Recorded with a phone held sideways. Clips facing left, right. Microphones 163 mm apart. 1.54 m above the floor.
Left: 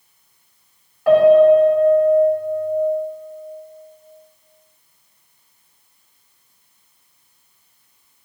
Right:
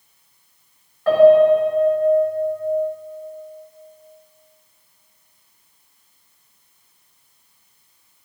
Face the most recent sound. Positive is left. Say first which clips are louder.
# left 1 dB
turn(degrees=15)  # may be behind; listen again after turning